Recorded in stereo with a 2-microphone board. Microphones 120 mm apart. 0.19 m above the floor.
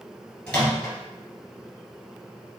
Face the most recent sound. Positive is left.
turn(degrees=10)  # may be behind; listen again after turning